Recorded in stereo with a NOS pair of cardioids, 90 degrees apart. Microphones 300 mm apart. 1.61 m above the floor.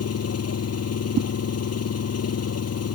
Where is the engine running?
55° left.